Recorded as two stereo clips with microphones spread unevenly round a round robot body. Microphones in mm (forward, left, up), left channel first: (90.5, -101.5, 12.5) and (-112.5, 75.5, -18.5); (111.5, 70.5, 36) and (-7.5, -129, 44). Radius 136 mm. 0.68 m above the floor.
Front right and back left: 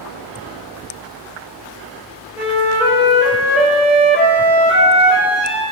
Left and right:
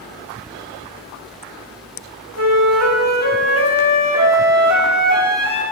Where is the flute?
135° right, 2.5 m.